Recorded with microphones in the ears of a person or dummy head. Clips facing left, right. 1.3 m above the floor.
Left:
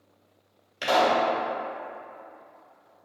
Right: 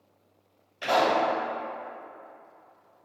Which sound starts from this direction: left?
A pop, at 0.8 s.